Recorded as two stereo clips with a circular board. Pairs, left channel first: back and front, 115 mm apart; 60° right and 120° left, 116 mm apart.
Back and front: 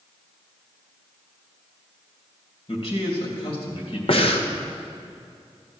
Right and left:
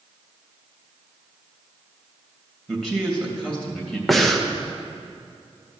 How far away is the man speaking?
About 2.5 m.